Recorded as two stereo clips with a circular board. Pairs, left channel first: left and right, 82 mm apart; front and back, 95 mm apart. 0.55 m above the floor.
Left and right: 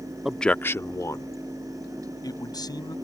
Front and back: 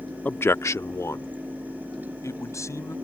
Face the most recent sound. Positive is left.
turn(degrees=60)